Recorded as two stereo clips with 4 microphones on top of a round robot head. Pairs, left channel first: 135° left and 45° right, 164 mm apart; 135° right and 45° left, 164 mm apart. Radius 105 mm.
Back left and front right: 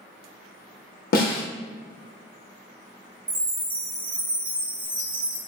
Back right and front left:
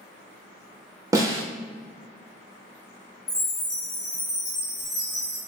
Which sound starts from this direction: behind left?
A snare drum, at 1.1 s.